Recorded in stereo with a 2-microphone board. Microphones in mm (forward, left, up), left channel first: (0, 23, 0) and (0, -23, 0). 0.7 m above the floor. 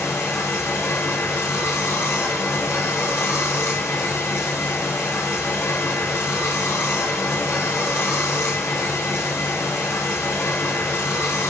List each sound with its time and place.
0.0 s running water: 75° left (ahead or behind), 0.9 m